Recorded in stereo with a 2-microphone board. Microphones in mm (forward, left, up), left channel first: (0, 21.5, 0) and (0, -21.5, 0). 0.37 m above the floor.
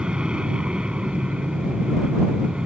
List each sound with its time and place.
0.0 s an aircraft: 20° right (ahead or behind)